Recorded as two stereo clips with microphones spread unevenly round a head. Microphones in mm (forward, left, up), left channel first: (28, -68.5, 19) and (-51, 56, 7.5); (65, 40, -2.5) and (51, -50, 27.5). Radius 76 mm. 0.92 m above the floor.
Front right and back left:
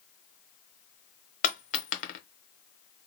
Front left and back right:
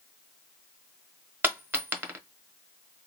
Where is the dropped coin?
60° right, 0.9 m.